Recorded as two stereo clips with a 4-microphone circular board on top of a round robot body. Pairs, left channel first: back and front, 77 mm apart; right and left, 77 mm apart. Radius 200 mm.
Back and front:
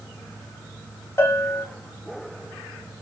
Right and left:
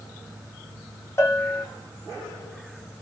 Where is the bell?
135° right, 1.4 m.